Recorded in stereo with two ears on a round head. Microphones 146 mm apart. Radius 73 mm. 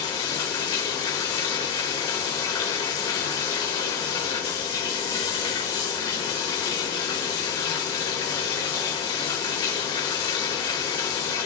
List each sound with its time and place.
0.0 s running water: 25° left (ahead or behind), 1.2 m